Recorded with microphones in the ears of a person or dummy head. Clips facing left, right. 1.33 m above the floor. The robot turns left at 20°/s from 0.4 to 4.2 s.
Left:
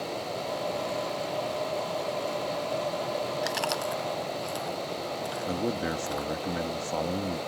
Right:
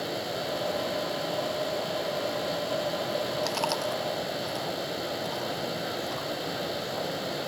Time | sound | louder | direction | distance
3.4 | chewing | right 1 dB | 15° left (ahead or behind) | ?
5.5 | a man speaking | left 3 dB | 65° left (ahead or behind) | ?